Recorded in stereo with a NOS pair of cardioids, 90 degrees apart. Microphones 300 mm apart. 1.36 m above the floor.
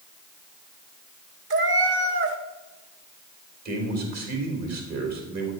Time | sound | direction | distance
1.5 | a cat meowing | 45° right | 1.7 m
3.6 | a man speaking | 65° right | 4 m